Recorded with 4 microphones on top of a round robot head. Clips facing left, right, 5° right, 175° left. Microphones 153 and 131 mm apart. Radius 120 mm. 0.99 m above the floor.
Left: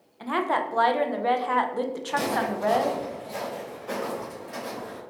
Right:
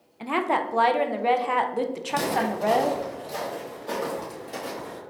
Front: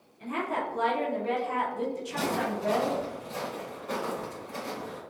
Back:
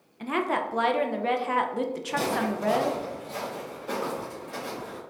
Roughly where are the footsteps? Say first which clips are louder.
Right 1 dB, back 4 dB; right.